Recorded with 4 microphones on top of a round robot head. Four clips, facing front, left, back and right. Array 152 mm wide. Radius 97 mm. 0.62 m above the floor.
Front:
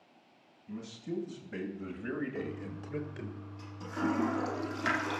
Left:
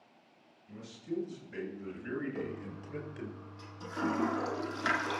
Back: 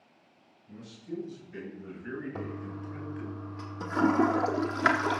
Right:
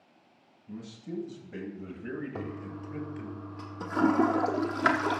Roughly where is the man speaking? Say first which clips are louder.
Even, front 1 dB; ahead right.